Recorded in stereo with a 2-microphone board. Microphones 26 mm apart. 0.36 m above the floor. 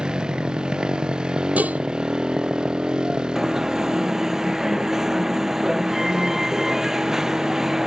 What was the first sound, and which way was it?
A motorcycle, 35° right (ahead or behind).